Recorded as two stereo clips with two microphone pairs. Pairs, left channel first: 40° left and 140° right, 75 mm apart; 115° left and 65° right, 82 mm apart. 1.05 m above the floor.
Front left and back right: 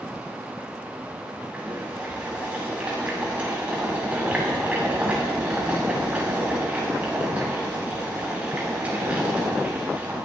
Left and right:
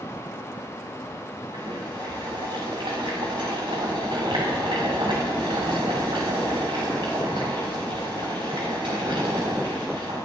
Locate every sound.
1.5 s boiling: 65° right, 7 m